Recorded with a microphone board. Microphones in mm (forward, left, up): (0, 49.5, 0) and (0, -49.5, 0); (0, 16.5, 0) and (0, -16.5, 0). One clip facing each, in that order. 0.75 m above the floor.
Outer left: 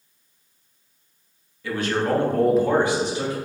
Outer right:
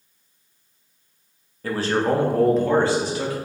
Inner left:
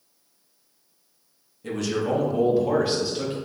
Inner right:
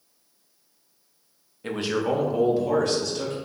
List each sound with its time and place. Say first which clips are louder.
1.6 s a man speaking: outer right 2 dB, even; 40° right (ahead or behind), 0.7 m; by 3.4 s 30° left (ahead or behind), 1.0 m